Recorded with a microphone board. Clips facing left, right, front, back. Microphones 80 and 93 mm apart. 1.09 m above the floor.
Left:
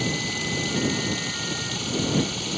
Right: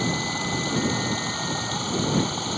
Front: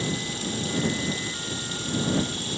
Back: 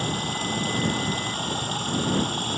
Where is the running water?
145° right.